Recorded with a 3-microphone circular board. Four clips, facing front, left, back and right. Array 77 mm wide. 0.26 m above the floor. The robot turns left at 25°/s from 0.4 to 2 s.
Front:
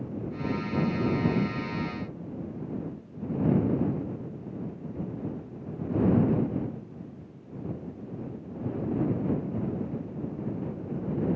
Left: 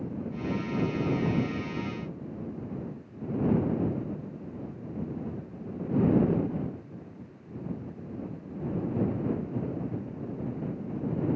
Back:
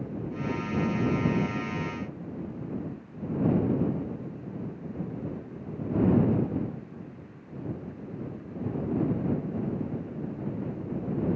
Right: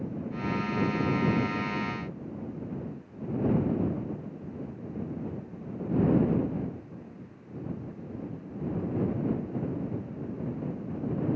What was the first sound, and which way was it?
Only background noise.